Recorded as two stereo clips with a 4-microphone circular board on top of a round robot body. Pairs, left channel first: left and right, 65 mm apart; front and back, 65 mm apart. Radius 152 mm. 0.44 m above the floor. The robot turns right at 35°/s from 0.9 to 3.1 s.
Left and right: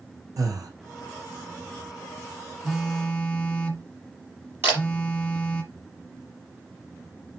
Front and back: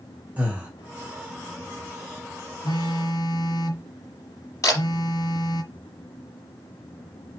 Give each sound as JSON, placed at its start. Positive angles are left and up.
{"t": 0.4, "sound": "breathing", "azimuth_deg": -110, "distance_m": 3.0}
{"t": 2.6, "sound": "a phone buzzing", "azimuth_deg": 0, "distance_m": 1.1}
{"t": 4.6, "sound": "a camera shutter", "azimuth_deg": -35, "distance_m": 5.0}